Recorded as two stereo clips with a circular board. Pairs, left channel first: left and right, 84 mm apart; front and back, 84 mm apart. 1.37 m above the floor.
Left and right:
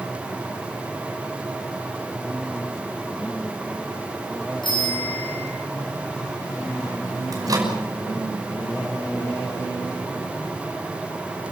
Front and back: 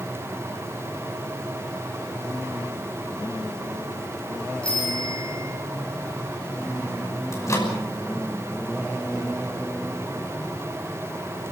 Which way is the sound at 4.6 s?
75° left.